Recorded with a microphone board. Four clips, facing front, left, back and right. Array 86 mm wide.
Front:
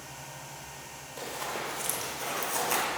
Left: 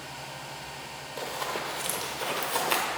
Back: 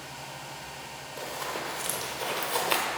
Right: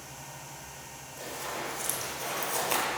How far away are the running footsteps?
About 1.5 m.